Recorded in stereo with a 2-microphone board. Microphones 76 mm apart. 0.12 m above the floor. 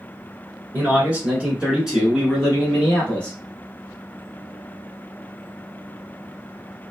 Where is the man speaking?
25° right (ahead or behind), 1.2 m; by 3.4 s 15° left (ahead or behind), 1.4 m.